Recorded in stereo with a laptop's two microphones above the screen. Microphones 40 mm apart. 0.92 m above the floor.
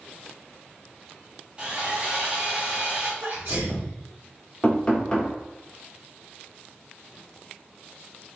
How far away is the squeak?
I don't hear a squeak.